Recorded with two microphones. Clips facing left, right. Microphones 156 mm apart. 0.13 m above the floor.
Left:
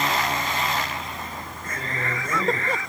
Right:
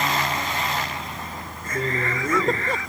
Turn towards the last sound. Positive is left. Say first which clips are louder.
# right 6 dB
turn(degrees=-65)  # may be behind; listen again after turning